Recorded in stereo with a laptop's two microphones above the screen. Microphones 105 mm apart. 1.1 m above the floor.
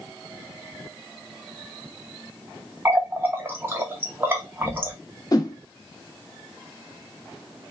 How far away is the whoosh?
About 0.7 m.